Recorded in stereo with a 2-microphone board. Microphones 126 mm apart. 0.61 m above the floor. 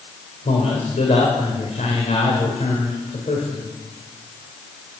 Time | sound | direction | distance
0.5 | a man speaking | 70° left (ahead or behind) | 1.9 m